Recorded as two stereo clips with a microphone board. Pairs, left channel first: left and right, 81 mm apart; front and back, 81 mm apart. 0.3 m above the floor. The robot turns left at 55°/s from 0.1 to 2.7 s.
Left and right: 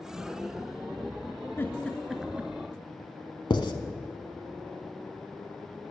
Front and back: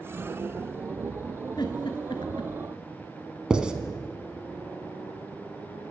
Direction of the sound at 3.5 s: 100° left.